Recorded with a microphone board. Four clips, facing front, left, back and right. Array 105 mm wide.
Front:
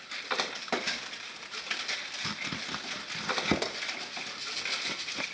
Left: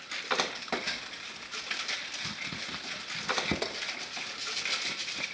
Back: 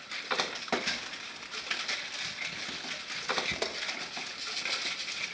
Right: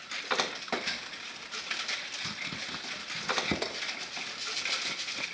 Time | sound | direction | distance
2.2 | chopping | 5° right | 0.9 m